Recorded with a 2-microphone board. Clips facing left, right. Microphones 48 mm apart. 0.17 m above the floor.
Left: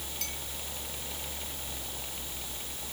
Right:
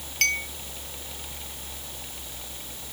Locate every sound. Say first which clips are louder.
0.2 s a clink: right 22 dB; 70° right (ahead or behind)